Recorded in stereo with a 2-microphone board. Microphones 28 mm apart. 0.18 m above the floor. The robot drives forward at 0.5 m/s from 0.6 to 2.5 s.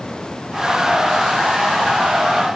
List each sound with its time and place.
Only background noise.